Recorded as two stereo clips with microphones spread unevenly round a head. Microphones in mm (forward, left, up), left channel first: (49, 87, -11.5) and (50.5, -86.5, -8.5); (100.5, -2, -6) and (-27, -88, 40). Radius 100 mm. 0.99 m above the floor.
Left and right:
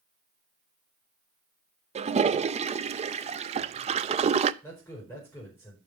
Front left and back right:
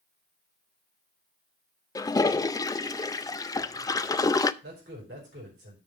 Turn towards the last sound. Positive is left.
turn(degrees=170)